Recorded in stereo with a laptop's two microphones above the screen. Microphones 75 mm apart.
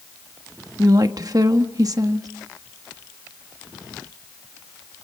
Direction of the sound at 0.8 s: 50° right (ahead or behind).